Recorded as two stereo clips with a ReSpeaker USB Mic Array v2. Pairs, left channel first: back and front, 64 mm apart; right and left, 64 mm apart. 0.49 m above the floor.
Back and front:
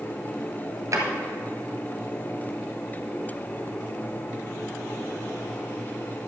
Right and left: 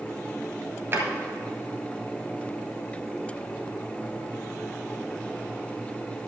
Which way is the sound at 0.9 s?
35° left.